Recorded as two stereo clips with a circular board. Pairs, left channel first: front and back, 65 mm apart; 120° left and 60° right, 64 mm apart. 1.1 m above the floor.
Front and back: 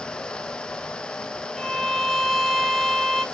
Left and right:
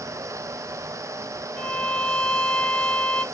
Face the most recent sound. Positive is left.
turn(degrees=85)